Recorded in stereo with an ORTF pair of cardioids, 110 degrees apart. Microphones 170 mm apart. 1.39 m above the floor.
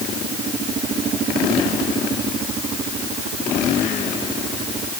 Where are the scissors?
No scissors in this recording.